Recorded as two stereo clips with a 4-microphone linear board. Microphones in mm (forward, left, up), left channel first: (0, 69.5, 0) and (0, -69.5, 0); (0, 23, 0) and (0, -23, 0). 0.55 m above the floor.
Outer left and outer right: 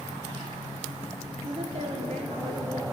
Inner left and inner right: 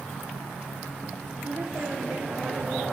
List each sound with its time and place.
1.4 s a woman speaking: 35° right (ahead or behind), 0.9 m; by 2.8 s 70° right (ahead or behind), 2.5 m